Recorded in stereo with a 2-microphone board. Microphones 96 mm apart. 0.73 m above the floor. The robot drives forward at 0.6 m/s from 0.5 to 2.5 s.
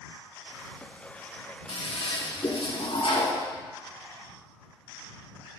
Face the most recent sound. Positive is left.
turn(degrees=70)  # may be behind; listen again after turning